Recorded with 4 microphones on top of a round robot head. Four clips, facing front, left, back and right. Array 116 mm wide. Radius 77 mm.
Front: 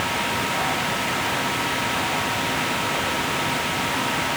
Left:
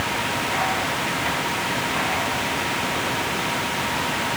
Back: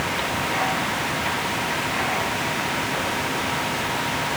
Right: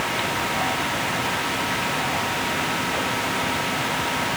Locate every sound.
Only background noise.